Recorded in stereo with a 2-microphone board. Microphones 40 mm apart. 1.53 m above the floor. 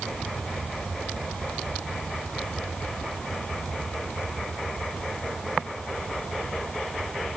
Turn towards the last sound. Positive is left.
No sound to turn to.